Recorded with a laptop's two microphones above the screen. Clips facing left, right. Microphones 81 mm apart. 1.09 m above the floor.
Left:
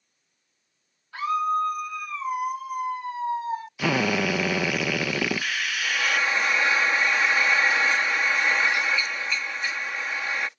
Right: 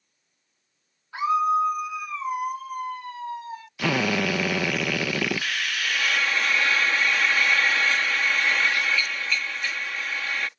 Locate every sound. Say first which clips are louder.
1.1 s a scream: right 3 dB; 15° right (ahead or behind); by 3.7 s 40° left (ahead or behind)
3.8 s a drill: even; 5° left (ahead or behind)
5.8 s frying: left 1 dB; 20° left (ahead or behind)